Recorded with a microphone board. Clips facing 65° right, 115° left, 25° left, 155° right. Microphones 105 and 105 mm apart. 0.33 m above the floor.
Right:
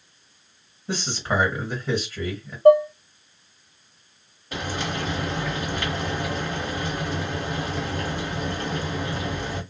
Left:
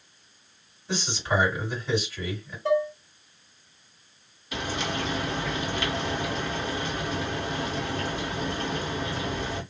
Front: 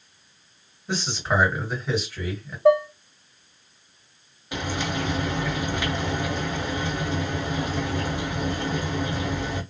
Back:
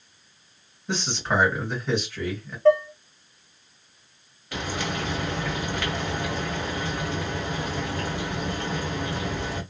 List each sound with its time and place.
0.9 s a man speaking: 55° right, 2 m
2.6 s dishes clattering: 50° right, 0.8 m
4.5 s frying: 45° right, 1.7 m